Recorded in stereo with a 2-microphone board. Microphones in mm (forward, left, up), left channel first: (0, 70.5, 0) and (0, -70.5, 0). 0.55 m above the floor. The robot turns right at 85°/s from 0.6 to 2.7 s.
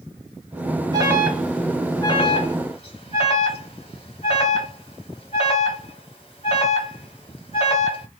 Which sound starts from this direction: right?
An alarm, at 0.9 s.